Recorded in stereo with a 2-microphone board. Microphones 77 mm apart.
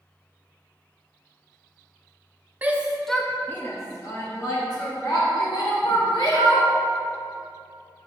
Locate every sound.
2.6 s a shout: 20° right (ahead or behind), 0.9 m; by 6.7 s 70° left (ahead or behind), 3 m